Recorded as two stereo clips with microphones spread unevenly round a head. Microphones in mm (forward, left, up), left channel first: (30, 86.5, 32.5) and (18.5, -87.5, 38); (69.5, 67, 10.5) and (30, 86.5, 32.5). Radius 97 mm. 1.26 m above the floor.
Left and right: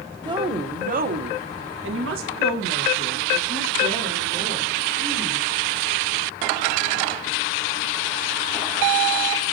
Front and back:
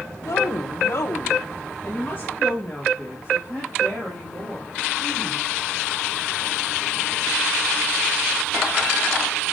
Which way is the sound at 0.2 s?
25° right.